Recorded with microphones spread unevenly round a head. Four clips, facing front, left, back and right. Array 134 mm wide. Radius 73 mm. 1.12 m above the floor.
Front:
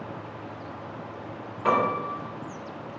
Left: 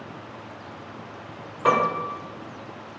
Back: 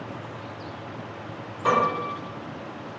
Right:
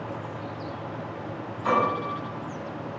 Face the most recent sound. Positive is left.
turn(degrees=95)